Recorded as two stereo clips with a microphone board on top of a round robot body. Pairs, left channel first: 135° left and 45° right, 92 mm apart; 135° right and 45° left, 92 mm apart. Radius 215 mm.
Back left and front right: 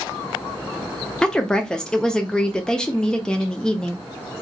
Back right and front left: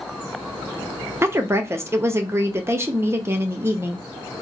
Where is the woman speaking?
60° left, 0.8 m.